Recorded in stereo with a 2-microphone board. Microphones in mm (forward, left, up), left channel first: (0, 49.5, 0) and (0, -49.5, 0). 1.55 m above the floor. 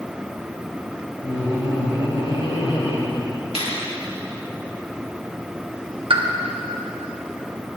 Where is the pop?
60° right (ahead or behind), 1.0 m.